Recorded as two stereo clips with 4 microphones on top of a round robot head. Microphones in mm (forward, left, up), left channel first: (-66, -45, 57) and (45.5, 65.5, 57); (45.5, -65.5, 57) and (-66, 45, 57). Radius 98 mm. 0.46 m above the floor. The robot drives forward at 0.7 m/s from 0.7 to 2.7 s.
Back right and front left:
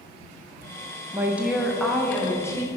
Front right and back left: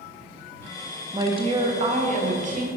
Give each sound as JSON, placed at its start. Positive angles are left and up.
{"t": 1.1, "sound": "a woman speaking", "azimuth_deg": 100, "distance_m": 1.0}